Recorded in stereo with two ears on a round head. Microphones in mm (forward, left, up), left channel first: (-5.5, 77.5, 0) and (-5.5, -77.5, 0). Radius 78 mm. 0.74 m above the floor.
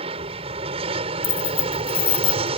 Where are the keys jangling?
35° left (ahead or behind).